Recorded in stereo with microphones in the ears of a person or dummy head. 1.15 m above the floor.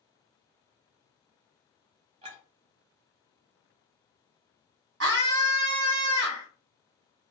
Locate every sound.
2.2 s a clink: 35° right (ahead or behind), 0.9 m
5.0 s a scream: 80° right, 1.3 m